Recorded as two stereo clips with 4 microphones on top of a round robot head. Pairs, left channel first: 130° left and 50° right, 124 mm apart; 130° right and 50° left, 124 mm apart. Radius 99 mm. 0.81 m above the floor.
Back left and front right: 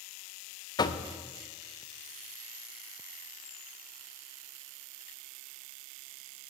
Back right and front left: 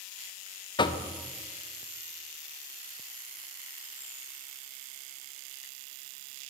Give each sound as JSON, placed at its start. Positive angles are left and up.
{"t": 0.8, "sound": "knocking", "azimuth_deg": 180, "distance_m": 0.7}